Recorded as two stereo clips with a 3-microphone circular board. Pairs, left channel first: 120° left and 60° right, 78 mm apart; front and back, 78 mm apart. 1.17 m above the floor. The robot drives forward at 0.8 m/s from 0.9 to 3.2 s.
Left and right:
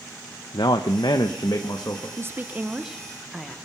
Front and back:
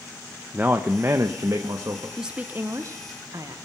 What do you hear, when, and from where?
0.5 s a man speaking: 120° left, 0.7 m; by 2.1 s 155° left, 1.4 m
2.2 s a woman speaking: 95° right, 0.7 m; by 3.6 s 150° right, 1.1 m